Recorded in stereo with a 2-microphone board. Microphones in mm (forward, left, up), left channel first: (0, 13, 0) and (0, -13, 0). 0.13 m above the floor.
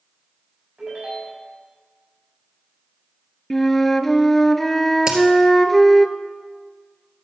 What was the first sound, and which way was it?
A ringtone, 40° right (ahead or behind).